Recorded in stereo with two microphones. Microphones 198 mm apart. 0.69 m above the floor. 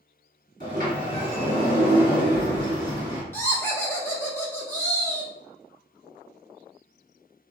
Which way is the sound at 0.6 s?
45° right (ahead or behind).